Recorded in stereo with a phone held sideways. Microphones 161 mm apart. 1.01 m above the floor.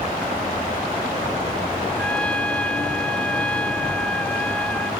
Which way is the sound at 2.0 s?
10° left (ahead or behind).